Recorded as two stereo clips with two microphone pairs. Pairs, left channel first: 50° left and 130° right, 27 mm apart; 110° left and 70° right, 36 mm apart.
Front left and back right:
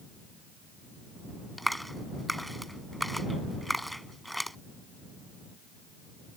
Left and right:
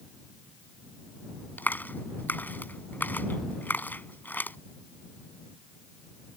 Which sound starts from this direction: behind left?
A clap, at 1.6 s.